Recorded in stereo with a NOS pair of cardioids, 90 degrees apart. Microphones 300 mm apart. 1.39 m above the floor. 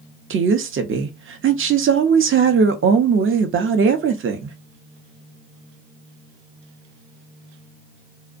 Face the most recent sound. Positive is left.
turn(degrees=-45)